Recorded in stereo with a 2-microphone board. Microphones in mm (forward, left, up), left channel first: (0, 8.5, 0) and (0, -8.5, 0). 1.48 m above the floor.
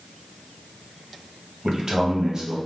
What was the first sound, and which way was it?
A man speaking, 35° right (ahead or behind).